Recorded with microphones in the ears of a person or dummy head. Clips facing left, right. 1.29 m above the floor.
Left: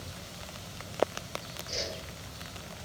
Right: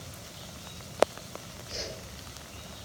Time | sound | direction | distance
1.7 | a whoosh | 75° left (ahead or behind) | 1.5 m